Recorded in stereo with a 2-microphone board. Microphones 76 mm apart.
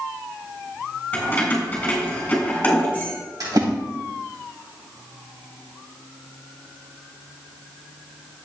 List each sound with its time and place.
1.1 s keys jangling: 20° left (ahead or behind), 3.5 m
3.4 s a splash: 70° right (ahead or behind), 3 m